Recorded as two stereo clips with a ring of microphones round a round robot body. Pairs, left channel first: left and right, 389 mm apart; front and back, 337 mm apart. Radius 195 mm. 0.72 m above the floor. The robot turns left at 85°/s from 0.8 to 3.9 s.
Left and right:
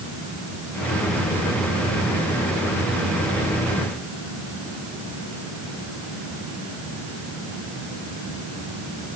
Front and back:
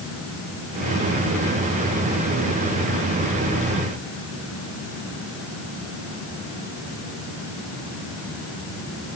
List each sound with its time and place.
Only background noise.